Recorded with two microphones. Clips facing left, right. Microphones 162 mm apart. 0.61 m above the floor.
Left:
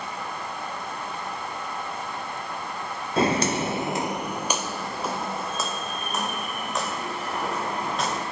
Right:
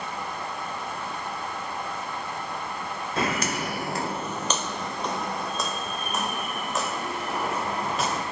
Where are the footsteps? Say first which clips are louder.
Left 6 dB; 30° left (ahead or behind), 0.7 m; by 8.2 s 5° right (ahead or behind), 4 m.